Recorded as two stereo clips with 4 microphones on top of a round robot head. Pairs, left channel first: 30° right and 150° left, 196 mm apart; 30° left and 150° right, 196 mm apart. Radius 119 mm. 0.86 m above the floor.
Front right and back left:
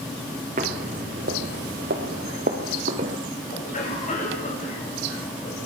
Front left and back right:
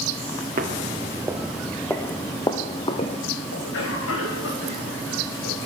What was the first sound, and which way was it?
Footsteps, 175° right.